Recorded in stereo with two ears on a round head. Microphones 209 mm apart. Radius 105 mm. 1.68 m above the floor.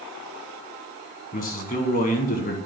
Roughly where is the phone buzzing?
No phone buzzing in this recording.